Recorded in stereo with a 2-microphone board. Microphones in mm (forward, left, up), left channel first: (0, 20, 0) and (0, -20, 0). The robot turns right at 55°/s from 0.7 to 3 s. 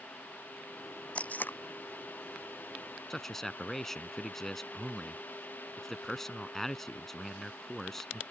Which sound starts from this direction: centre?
A man speaking, at 3.1 s.